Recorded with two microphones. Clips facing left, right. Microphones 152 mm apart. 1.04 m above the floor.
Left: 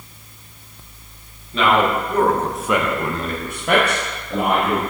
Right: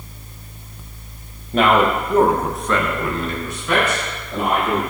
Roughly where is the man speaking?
Right.